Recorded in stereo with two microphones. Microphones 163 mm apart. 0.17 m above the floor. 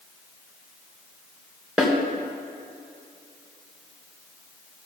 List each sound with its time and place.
1.8 s a snare drum: 5° right (ahead or behind), 2.5 m